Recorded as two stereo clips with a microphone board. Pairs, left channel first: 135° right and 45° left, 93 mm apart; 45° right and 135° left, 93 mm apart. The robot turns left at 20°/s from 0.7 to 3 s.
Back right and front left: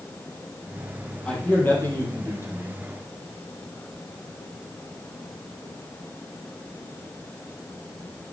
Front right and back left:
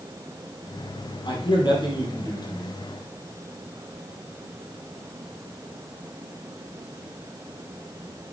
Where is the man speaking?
60° right, 4 m; by 2.8 s 90° right, 4 m.